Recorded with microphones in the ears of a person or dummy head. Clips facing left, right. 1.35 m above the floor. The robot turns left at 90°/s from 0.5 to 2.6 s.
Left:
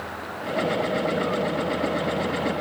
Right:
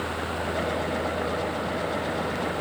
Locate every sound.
Only background noise.